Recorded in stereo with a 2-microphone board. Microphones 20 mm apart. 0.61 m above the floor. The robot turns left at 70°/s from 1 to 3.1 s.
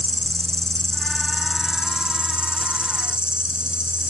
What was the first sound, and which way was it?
An insect, 30° left.